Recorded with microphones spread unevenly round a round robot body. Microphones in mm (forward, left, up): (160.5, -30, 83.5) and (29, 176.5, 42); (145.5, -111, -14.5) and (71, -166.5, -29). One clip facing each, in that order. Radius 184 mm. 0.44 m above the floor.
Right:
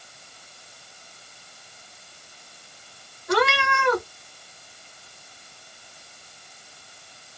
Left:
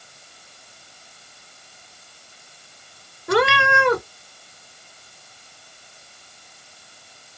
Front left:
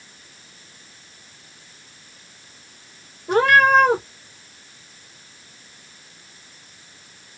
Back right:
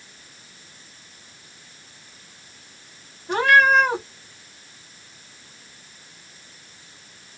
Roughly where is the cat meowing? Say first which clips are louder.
Left 4 dB, front left 2 dB; left.